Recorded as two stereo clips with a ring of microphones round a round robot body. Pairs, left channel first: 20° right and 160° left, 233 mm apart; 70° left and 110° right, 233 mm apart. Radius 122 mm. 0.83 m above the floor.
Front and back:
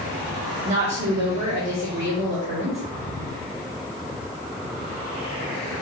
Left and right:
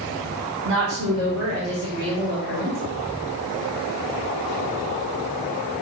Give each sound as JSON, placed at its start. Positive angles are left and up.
{"t": 0.7, "sound": "a woman speaking", "azimuth_deg": -140, "distance_m": 2.5}